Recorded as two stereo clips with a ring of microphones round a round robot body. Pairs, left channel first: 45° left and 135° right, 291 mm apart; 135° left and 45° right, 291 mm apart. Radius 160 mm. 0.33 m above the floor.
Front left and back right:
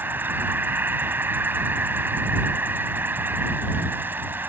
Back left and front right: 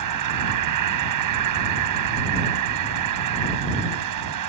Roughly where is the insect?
Ahead right.